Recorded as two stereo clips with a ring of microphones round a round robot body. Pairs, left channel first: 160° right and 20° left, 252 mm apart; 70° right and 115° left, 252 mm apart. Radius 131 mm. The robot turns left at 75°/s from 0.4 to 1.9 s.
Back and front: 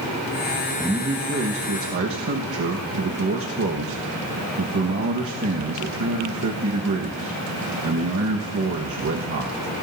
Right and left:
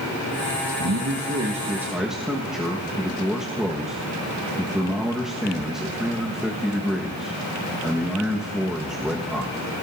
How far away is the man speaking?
About 1.4 m.